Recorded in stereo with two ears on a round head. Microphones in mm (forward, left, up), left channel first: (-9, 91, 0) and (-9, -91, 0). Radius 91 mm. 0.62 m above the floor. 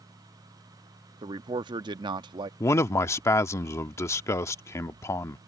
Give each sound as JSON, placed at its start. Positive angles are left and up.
{"t": 1.2, "sound": "a man speaking", "side_deg": -25}
{"t": 2.6, "sound": "a man speaking", "side_deg": 15}